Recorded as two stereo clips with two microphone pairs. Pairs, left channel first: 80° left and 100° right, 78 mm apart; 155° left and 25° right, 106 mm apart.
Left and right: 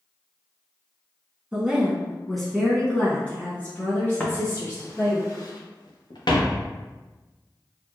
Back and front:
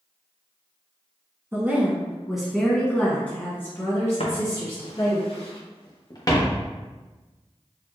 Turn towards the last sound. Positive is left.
turn(degrees=95)